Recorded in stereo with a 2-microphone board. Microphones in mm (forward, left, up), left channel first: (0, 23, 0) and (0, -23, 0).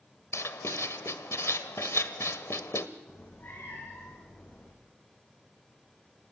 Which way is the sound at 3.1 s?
50° left (ahead or behind).